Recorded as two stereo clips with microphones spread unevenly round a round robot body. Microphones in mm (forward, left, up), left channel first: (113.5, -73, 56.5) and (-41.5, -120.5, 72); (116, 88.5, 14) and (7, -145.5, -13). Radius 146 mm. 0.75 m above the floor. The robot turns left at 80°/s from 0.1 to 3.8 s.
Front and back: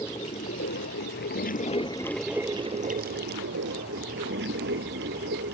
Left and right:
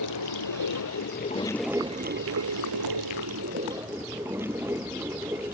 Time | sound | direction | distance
0.0 | running water | 100° left | ?